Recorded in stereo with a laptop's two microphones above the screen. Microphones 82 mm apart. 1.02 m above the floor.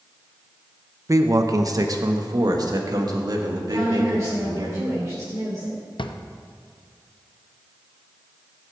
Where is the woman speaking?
40° right (ahead or behind), 3 m.